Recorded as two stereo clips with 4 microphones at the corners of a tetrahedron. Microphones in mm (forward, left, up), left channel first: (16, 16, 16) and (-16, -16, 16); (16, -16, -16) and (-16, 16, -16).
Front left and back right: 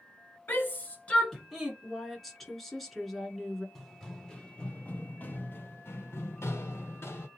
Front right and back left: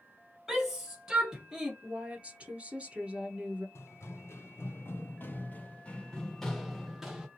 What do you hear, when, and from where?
0.5 s a shout: 60° left, 2.0 m; by 1.7 s 170° right, 1.2 m
1.8 s a woman speaking: 125° left, 1.1 m
3.8 s running footsteps: 45° right, 1.4 m; by 7.3 s 60° left, 1.5 m